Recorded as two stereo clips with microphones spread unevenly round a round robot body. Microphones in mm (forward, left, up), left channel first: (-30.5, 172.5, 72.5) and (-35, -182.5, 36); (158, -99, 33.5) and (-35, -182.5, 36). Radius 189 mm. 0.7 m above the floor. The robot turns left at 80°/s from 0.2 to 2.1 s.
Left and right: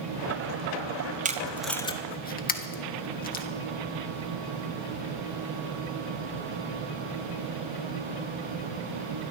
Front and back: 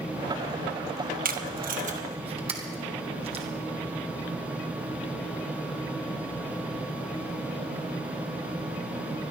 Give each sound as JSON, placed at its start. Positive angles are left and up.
{"t": 1.2, "sound": "tape being pulled", "azimuth_deg": -140, "distance_m": 1.4}